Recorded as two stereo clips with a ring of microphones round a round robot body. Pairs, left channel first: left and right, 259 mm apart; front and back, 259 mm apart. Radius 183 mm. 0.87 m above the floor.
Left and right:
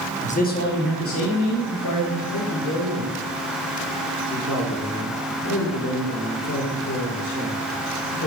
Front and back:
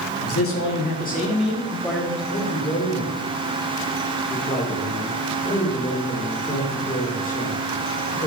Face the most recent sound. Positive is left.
turn(degrees=60)